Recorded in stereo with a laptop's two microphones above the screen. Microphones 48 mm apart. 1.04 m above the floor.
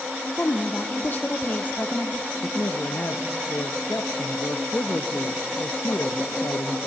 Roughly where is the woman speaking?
Left.